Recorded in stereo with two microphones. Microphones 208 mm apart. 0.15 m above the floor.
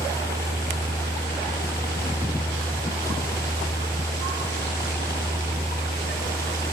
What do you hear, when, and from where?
0.0 s a helicopter: 15° left (ahead or behind)